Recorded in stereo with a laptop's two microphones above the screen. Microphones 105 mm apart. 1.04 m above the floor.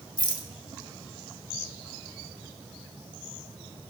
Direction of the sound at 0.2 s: 45° left (ahead or behind).